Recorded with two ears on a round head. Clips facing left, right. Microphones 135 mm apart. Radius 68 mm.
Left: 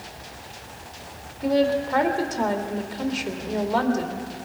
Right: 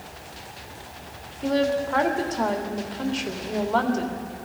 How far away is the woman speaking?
About 2 m.